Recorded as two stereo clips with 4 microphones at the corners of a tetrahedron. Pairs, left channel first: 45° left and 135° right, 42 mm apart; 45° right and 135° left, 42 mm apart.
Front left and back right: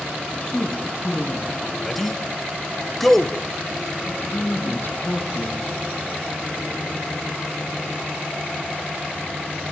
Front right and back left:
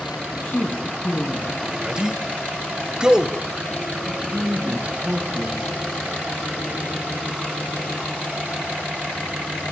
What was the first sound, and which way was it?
A woman speaking, 20° right.